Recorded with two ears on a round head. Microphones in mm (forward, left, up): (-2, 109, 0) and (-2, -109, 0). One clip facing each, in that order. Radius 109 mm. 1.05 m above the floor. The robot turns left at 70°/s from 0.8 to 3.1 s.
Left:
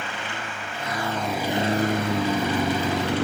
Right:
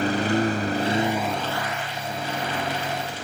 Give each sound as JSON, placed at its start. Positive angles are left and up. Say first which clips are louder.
{"t": 0.0, "sound": "a lawn mower", "louder": "right 13 dB", "azimuth_deg": -145}